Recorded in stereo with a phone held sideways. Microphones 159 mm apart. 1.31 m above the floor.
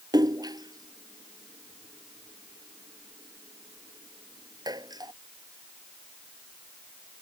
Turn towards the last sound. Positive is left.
turn(degrees=-25)  # may be behind; listen again after turning